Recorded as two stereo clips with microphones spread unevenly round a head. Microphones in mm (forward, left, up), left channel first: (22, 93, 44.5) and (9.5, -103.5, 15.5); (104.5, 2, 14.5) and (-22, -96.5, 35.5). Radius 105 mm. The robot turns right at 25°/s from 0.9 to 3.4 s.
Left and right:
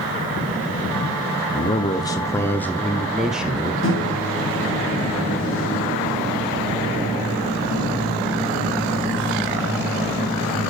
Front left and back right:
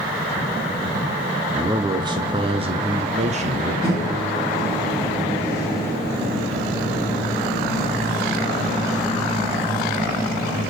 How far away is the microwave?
About 1.0 m.